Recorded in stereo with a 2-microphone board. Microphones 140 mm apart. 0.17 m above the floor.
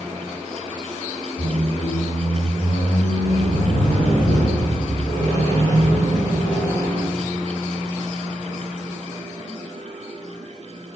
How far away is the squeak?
About 1.1 m.